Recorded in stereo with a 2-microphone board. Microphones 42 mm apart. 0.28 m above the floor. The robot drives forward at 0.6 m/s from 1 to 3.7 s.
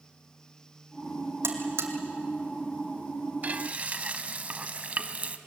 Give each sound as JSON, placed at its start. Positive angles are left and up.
{"t": 1.4, "sound": "a buzzer", "side_deg": -75, "distance_m": 2.5}
{"t": 3.4, "sound": "frying", "side_deg": -40, "distance_m": 0.9}